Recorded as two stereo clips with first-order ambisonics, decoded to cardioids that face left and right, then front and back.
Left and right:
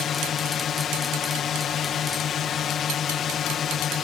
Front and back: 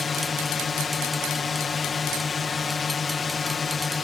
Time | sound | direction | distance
0.0 | a drone | 55° left | ?